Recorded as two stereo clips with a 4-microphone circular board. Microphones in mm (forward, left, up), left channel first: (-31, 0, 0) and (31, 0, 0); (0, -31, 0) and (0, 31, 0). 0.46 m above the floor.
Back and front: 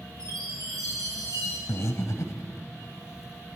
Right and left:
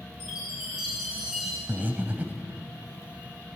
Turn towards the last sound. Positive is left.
turn(degrees=150)